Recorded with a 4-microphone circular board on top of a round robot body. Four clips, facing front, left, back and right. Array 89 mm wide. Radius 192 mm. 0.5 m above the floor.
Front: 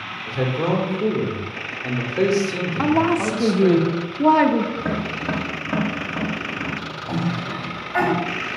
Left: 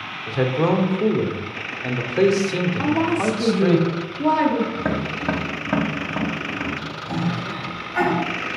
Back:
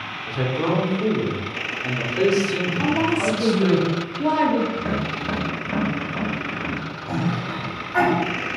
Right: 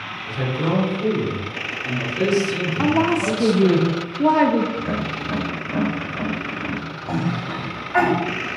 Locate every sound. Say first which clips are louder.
0.3 s a man speaking: left 4 dB, front 1 dB; 85° left, 1.7 m
2.8 s a woman speaking: right 3 dB, front 4 dB; 30° right, 1.0 m
4.8 s tapping: left 1 dB, even; 85° left, 1.0 m
7.1 s a cough: right 1 dB, even; 100° right, 3.5 m